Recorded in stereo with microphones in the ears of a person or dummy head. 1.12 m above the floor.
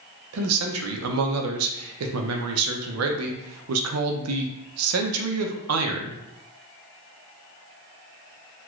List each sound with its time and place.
0.3 s a man speaking: 85° right, 0.6 m